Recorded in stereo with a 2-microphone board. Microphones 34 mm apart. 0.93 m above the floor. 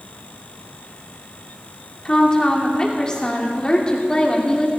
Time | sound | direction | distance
2.0 | a woman speaking | 20° left (ahead or behind) | 2.5 m